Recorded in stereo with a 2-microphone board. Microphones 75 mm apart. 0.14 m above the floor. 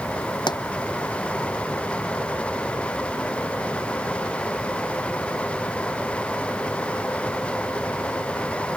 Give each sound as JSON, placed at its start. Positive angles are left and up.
{"t": 0.5, "sound": "a pop", "side_deg": 75}